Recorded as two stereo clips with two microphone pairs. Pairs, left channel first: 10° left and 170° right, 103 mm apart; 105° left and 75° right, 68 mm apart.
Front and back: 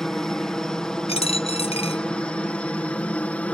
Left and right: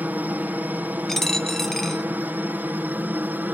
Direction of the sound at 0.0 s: 70° right.